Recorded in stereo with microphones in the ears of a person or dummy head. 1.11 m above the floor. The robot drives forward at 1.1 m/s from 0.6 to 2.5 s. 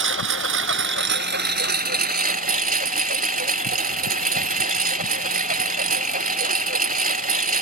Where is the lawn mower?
65° right (ahead or behind); by 7.6 s 45° right (ahead or behind).